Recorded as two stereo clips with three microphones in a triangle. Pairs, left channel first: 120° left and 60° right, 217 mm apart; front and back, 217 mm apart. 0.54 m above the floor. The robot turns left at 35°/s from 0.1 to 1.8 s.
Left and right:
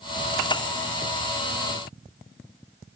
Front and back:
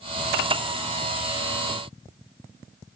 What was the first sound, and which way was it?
Only background noise.